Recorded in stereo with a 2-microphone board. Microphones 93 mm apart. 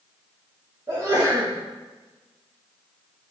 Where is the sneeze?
40° right (ahead or behind), 4 m.